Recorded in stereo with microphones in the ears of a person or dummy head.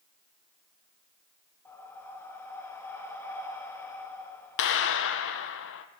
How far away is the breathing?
About 1.5 m.